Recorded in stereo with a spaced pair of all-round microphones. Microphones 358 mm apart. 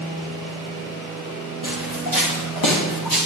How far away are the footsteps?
About 9 m.